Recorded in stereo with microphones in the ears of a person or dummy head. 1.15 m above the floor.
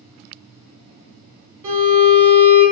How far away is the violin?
About 1.5 m.